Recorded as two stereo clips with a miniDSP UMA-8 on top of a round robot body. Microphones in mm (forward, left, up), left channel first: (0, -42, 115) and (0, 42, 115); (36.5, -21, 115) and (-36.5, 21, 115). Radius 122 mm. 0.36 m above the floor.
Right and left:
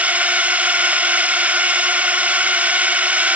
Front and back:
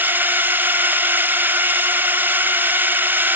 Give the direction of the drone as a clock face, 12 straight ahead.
8 o'clock.